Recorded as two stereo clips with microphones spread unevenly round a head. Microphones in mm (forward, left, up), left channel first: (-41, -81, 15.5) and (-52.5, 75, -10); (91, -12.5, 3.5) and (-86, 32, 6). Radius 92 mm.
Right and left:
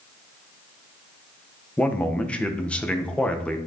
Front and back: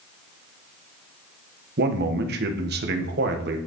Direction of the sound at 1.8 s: 165° right.